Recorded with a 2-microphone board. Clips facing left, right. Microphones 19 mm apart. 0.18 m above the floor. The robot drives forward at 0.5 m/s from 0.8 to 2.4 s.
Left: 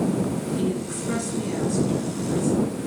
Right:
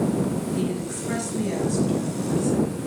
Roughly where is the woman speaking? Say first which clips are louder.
Left 1 dB; right.